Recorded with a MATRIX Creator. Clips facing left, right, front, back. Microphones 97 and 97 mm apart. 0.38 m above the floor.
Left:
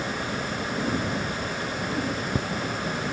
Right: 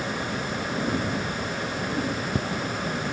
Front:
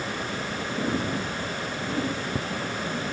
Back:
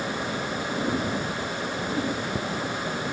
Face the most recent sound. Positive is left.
No sound to turn to.